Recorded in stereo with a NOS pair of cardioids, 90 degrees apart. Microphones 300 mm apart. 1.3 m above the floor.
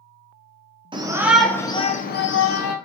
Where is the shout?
15° right, 0.8 m; by 2.8 s 55° left, 0.8 m.